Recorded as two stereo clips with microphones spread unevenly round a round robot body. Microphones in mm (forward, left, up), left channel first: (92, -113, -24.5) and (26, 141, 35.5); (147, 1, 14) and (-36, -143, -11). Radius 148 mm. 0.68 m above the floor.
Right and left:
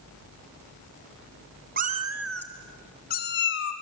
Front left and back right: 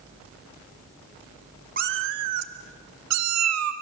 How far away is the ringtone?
No ringtone in this recording.